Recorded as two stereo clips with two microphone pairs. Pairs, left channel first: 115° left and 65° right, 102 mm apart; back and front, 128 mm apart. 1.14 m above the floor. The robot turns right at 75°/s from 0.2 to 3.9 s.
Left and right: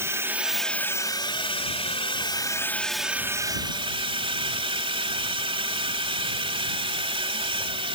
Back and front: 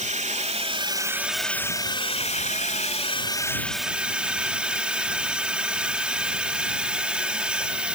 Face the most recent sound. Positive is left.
turn(degrees=-80)